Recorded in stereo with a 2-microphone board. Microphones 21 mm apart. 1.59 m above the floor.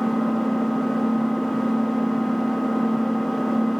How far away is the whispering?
No whispering in this recording.